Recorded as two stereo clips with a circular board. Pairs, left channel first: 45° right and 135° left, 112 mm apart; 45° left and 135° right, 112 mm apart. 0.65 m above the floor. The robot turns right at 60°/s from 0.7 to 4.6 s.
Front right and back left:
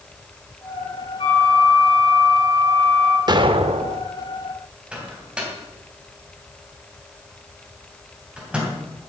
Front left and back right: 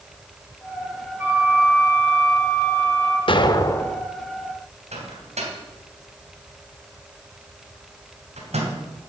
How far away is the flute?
About 3 m.